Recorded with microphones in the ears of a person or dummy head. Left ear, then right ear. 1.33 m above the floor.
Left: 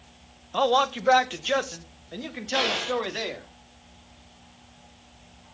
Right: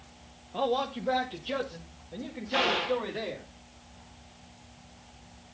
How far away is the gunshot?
About 3.5 m.